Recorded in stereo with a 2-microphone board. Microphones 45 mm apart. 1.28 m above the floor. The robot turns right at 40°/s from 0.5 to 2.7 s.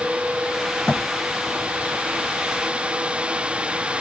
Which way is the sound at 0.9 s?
20° left (ahead or behind).